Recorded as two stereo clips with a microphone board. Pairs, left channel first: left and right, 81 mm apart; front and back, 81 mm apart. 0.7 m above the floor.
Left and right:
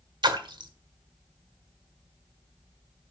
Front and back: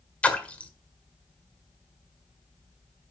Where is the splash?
75° right, 1.5 m.